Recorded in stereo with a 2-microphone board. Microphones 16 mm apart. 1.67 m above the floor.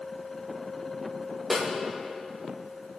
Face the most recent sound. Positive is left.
turn(degrees=-25)  # may be behind; listen again after turning